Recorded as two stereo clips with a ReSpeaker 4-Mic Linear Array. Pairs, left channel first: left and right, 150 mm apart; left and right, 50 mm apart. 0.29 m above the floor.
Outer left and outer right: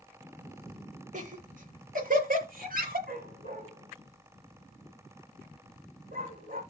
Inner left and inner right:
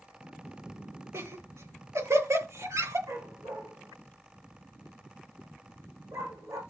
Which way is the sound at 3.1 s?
75° right (ahead or behind).